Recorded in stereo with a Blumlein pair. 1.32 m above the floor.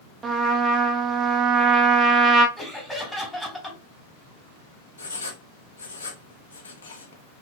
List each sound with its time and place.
0.2 s a trumpet: 25° right, 0.8 m
2.6 s laughter: 5° left, 2.5 m
5.0 s writing: 70° left, 0.9 m